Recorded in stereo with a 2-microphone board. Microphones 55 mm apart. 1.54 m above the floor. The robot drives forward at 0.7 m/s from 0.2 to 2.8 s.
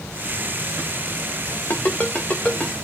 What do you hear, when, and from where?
1.7 s a ringtone: 35° left (ahead or behind), 0.9 m; by 2.8 s 20° left (ahead or behind), 1.5 m